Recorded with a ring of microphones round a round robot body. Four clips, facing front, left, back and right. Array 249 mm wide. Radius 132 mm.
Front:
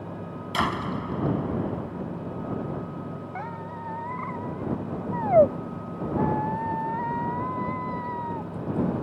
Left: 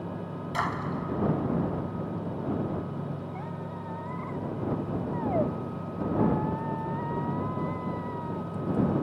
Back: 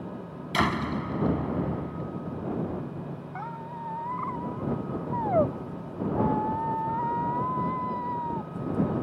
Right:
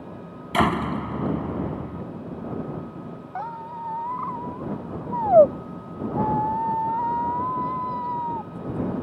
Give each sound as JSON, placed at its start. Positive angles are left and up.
{"t": 0.5, "sound": "a door slam", "azimuth_deg": -100}
{"t": 3.4, "sound": "a squeak", "azimuth_deg": -65}